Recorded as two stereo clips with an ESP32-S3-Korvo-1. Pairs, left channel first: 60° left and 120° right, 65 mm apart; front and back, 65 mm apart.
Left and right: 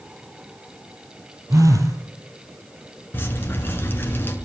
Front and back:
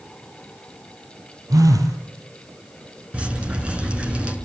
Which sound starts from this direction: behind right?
A phone buzzing, at 1.5 s.